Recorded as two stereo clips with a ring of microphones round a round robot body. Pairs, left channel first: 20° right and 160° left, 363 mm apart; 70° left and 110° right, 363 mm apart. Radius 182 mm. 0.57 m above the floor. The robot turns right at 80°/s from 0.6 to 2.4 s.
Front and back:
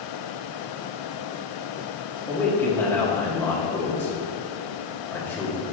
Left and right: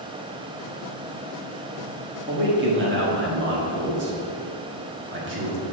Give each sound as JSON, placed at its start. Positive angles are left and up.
{"t": 2.3, "sound": "a man speaking", "azimuth_deg": -110, "distance_m": 1.3}